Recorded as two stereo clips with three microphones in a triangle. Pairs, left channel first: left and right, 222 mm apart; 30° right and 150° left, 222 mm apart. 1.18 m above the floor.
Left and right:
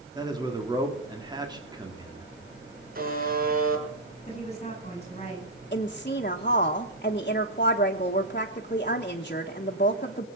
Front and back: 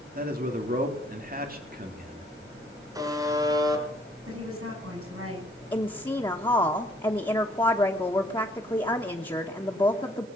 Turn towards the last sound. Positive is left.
turn(degrees=40)